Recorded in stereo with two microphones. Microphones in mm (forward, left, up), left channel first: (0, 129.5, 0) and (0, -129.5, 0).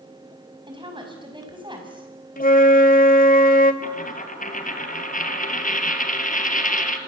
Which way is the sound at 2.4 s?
35° left (ahead or behind).